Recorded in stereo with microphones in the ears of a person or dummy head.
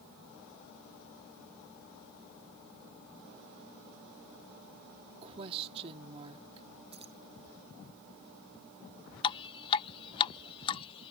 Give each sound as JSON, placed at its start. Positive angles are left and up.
{"t": 5.2, "sound": "a woman speaking", "side_deg": -40}
{"t": 6.9, "sound": "keys jangling", "side_deg": -20}
{"t": 9.2, "sound": "dripping", "side_deg": 20}